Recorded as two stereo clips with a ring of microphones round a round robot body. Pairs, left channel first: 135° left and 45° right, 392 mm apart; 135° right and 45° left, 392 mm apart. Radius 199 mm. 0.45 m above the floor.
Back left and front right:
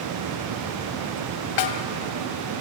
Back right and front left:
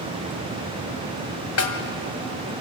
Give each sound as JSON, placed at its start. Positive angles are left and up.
{"t": 1.6, "sound": "a snare drum", "azimuth_deg": 170, "distance_m": 1.9}